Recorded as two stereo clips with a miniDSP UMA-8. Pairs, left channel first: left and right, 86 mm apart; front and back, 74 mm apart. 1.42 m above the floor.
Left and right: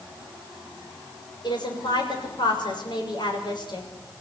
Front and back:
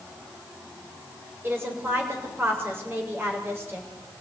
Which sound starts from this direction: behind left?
A woman speaking, at 1.4 s.